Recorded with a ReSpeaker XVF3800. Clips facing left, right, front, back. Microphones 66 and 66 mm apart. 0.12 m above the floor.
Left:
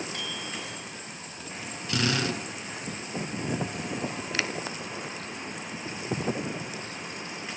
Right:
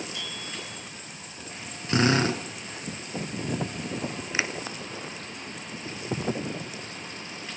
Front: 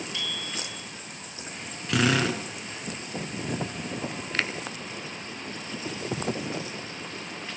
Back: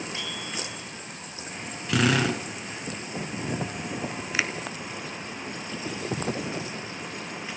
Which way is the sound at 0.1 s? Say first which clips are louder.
Left 2 dB, back 1 dB; 120° left.